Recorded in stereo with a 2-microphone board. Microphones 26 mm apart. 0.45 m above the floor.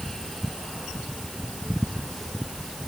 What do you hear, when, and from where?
Only background noise.